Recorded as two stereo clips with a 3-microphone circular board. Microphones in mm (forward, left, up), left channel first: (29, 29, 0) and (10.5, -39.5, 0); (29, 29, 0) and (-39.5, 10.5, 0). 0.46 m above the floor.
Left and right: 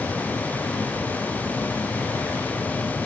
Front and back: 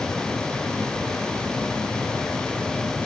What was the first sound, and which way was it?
Only background noise.